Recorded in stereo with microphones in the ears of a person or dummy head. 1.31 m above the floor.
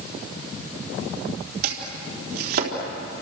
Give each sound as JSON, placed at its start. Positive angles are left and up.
{"t": 1.6, "sound": "chopping", "side_deg": -60, "distance_m": 3.5}